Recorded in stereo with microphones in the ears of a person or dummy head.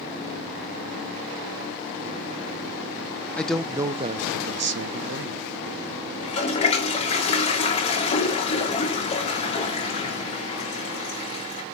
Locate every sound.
3.4 s a man speaking: 10° left (ahead or behind), 0.6 m; by 5.5 s 65° right (ahead or behind), 1.0 m
6.2 s a toilet flushing: 35° left (ahead or behind), 1.8 m